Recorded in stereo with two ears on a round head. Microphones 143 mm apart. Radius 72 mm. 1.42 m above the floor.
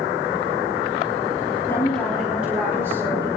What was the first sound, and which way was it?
A woman speaking, 15° left (ahead or behind).